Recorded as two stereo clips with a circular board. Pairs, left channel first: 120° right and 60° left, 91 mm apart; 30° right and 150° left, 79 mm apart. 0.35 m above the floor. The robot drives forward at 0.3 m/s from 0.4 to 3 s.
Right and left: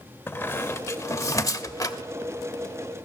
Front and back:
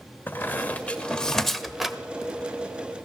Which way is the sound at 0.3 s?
75° right.